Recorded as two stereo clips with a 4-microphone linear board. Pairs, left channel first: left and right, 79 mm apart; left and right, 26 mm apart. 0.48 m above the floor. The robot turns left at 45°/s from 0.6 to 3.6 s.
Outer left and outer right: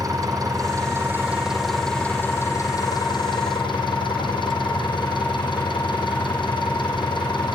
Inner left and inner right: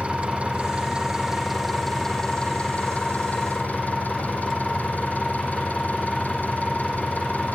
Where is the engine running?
130° right, 8 m; by 7.5 s 95° left, 8 m.